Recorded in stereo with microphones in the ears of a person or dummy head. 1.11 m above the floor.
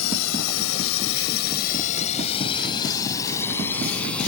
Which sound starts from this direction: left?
A drone, at 0.0 s.